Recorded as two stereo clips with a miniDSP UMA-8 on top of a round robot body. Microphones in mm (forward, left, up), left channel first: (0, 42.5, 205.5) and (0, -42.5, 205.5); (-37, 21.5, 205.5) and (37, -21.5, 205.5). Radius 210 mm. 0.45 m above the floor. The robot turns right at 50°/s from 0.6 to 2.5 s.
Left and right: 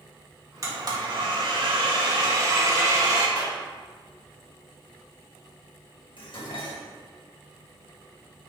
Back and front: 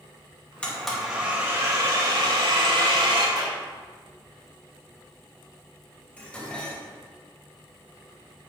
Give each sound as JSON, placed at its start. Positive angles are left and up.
{"t": 0.6, "sound": "a blender", "azimuth_deg": -135, "distance_m": 2.5}
{"t": 3.4, "sound": "a clap", "azimuth_deg": -60, "distance_m": 2.5}
{"t": 6.2, "sound": "dishes clattering", "azimuth_deg": 70, "distance_m": 2.5}